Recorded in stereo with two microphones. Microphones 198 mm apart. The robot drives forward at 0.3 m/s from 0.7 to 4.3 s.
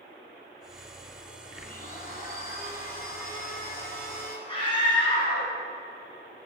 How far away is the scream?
About 1.8 m.